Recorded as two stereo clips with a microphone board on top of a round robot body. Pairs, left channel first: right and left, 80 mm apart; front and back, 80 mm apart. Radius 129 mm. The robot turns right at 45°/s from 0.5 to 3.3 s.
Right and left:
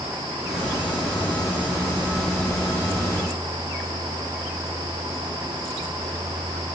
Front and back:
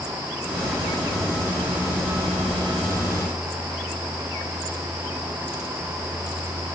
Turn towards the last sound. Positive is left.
No sound to turn to.